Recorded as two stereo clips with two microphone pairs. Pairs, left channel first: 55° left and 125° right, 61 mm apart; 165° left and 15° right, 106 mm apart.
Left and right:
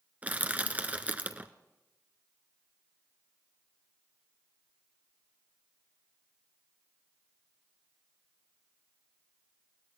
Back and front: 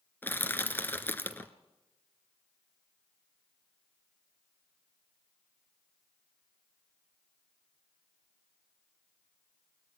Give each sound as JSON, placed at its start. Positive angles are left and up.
{"t": 0.2, "sound": "crushing", "azimuth_deg": -145, "distance_m": 1.2}